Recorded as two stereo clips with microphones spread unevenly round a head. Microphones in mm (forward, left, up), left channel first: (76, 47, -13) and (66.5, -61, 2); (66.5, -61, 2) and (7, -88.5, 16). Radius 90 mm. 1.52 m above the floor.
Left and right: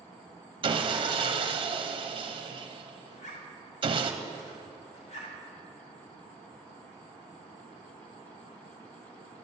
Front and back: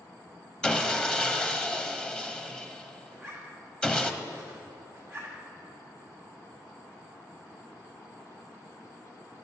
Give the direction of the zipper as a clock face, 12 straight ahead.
8 o'clock.